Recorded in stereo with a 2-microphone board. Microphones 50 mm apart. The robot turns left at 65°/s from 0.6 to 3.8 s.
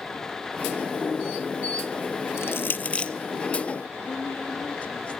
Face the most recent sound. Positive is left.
turn(degrees=25)  # may be behind; listen again after turning